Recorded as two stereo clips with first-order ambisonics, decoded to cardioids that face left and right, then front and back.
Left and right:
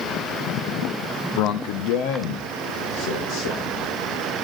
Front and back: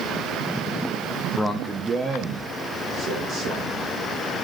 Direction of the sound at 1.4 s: 80° left.